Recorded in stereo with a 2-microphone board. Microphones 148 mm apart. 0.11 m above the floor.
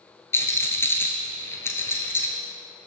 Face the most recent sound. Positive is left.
turn(degrees=15)  # may be behind; listen again after turning